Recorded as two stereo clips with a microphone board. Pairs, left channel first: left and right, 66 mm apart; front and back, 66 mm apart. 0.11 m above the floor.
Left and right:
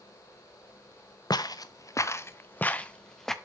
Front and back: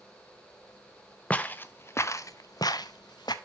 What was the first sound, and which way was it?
Footsteps, 70° left.